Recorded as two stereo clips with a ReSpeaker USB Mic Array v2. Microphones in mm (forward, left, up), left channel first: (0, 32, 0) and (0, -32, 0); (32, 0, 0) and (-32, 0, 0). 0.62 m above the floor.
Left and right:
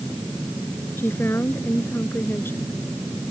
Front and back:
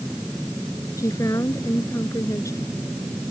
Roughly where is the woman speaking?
Ahead left.